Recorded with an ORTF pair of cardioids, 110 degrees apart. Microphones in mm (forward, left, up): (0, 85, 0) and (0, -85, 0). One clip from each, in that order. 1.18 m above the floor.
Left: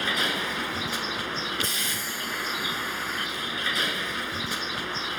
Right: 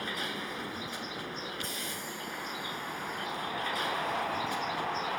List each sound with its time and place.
0.0 s a vehicle: 60° left